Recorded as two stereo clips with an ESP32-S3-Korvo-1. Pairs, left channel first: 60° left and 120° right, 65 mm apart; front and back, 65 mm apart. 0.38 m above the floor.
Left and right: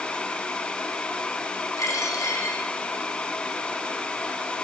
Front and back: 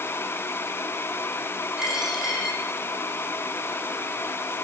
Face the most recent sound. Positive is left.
turn(degrees=100)